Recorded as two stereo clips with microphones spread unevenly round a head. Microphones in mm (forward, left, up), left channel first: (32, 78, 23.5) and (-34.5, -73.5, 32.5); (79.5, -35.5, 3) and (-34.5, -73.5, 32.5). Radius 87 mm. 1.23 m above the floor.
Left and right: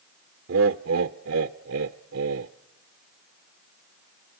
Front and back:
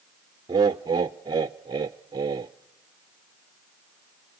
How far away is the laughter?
About 0.5 m.